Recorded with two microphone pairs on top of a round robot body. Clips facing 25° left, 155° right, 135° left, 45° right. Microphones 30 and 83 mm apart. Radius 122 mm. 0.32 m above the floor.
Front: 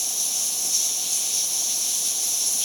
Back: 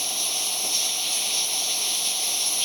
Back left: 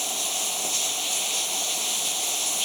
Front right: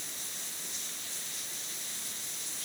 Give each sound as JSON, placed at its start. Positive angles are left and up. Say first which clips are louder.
{"t": 0.0, "sound": "running water", "louder": "back 1 dB, back left 15 dB", "azimuth_deg": 155}